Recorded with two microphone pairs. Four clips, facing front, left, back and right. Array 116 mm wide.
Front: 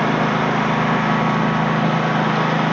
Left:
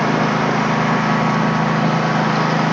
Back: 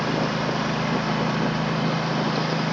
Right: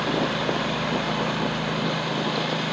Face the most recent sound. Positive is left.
turn(degrees=50)